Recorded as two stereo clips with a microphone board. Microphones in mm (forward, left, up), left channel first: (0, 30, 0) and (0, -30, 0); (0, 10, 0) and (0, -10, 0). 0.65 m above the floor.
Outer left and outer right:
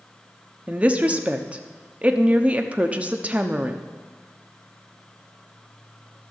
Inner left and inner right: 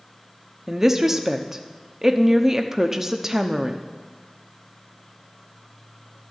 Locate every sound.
0.7 s a woman speaking: 20° right (ahead or behind), 0.9 m